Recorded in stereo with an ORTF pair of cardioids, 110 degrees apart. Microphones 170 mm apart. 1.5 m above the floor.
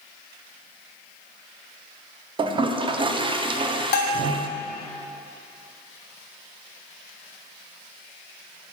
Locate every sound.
2.4 s a toilet flushing: 30° right, 0.5 m
3.9 s a bell: 65° left, 0.7 m